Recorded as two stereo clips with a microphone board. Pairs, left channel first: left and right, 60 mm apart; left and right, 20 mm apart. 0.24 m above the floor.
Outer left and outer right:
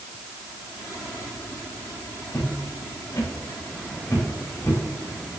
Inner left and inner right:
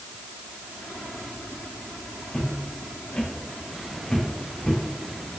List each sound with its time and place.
2.3 s footsteps: 60° left (ahead or behind), 6.5 m; by 4.8 s 55° left (ahead or behind), 8 m